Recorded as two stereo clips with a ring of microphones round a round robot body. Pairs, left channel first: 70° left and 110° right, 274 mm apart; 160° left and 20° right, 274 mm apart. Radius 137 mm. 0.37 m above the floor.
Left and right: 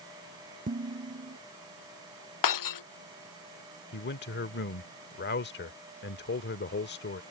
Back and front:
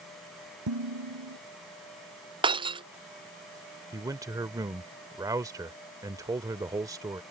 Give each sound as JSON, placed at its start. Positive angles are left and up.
{"t": 0.7, "sound": "dishes clattering", "azimuth_deg": -50}
{"t": 2.4, "sound": "breaking glass", "azimuth_deg": 50}
{"t": 3.9, "sound": "a man speaking", "azimuth_deg": 50}